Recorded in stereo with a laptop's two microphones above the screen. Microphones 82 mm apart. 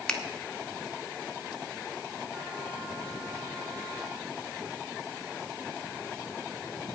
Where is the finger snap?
10° left (ahead or behind), 0.8 m.